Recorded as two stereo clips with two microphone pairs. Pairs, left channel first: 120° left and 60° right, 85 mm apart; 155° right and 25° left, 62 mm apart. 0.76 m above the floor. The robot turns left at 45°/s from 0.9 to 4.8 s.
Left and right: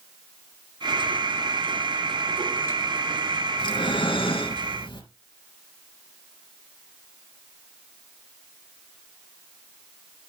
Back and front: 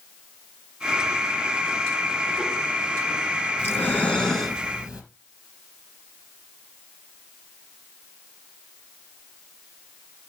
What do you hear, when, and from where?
3.6 s breathing: 155° left, 3 m; by 5.0 s 100° left, 3 m